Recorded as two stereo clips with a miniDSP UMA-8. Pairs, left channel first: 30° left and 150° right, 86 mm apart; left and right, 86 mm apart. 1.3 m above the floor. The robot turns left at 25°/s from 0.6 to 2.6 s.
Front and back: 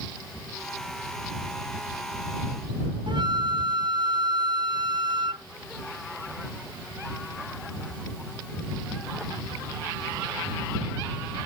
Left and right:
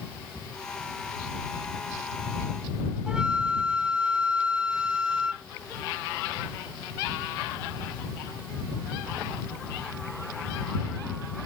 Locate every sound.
3.1 s a flute: 170° right